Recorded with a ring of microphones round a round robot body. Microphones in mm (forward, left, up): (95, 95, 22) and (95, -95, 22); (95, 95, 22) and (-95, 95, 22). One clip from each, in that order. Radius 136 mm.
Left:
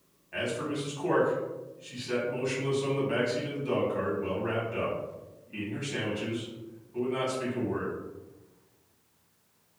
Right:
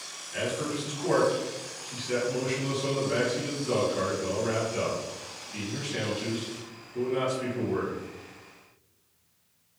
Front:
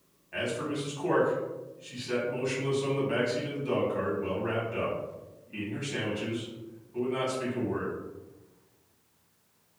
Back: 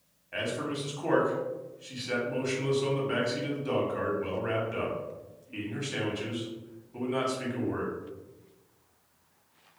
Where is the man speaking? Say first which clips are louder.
Right 1 dB, even; 135° left, 1.0 m.